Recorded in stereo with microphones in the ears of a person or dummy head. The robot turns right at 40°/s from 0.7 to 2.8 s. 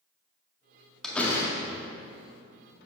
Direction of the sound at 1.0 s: 5° left (ahead or behind).